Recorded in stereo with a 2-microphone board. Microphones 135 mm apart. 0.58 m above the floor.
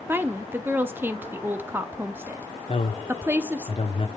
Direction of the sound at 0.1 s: 15° right (ahead or behind).